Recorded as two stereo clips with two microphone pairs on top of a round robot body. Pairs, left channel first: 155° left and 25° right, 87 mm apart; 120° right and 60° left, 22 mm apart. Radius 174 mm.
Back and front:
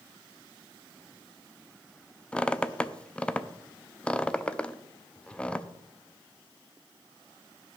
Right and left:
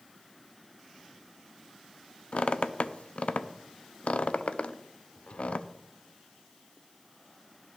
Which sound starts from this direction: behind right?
A squeak, at 2.3 s.